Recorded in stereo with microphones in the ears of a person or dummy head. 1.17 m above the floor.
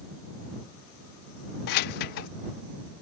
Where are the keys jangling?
50° left (ahead or behind).